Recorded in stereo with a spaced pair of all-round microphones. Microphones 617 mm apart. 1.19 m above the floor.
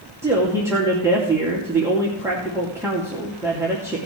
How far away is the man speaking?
About 2.5 m.